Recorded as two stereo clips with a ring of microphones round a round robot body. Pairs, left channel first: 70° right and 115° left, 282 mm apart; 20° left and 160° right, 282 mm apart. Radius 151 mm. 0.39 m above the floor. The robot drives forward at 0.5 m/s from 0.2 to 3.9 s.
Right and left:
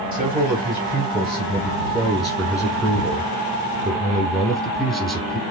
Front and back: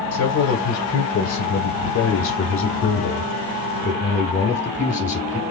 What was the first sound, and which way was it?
A man speaking, 5° left.